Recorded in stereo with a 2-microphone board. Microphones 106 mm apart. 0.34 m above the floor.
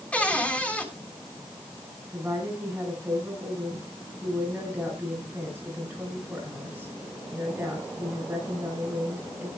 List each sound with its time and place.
0.1 s a cupboard door: 10° left (ahead or behind), 3 m
2.1 s a woman speaking: 15° right (ahead or behind), 10 m